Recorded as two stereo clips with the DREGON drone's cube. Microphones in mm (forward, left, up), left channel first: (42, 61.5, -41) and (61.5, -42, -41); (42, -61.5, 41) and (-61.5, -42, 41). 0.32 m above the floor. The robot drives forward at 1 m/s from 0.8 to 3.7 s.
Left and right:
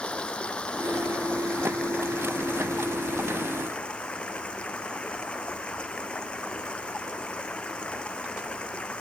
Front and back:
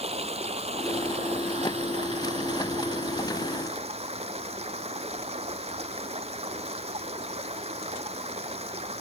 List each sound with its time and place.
0.0 s running water: straight behind